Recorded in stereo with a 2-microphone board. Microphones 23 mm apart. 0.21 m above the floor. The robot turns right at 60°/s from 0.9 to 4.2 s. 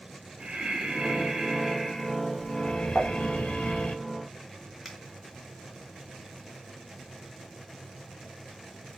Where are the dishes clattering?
40° left (ahead or behind), 1.1 m; by 3.1 s 35° left (ahead or behind), 1.1 m.